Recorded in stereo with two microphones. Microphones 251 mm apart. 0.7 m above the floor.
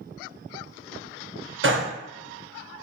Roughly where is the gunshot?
Right.